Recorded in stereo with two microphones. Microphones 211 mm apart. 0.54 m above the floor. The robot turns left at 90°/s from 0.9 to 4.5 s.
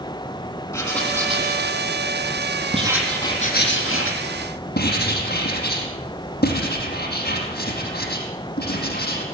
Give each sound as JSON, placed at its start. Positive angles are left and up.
{"t": 0.7, "sound": "writing", "azimuth_deg": 15, "distance_m": 4.5}